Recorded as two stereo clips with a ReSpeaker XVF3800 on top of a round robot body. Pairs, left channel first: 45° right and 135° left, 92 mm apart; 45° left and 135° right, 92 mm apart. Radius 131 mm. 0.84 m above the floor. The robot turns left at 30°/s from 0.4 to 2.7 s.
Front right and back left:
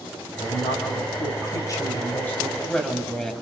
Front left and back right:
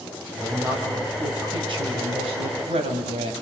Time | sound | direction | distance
0.4 | a woman speaking | 60° right | 5.5 m